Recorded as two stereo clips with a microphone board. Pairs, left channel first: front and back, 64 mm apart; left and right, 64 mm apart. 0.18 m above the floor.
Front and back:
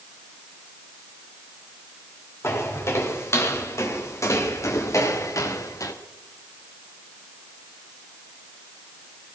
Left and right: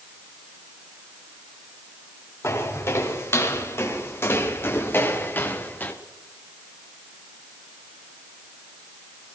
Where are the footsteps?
45° left, 4 m; by 5.9 s 30° left, 1.8 m.